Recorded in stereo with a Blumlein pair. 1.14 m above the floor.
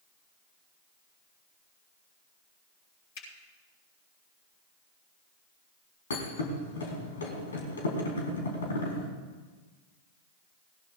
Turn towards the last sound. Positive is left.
turn(degrees=70)